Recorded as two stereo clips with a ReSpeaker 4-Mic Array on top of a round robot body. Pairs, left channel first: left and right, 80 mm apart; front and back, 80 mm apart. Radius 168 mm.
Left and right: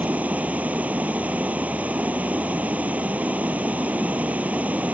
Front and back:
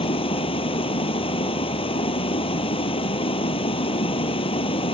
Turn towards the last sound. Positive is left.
turn(degrees=-15)